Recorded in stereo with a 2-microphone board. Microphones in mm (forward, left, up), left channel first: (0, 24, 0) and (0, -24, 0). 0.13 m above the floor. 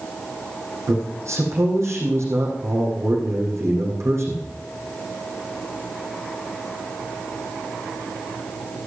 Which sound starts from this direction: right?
A man speaking, at 0.9 s.